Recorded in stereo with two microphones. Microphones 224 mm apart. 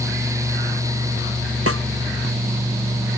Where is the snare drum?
75° right (ahead or behind).